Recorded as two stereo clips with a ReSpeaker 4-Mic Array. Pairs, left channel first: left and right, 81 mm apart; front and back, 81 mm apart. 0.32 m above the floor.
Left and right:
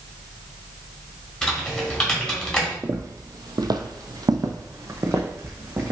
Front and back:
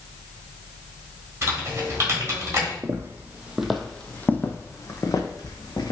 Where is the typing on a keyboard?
160° left, 1.4 m.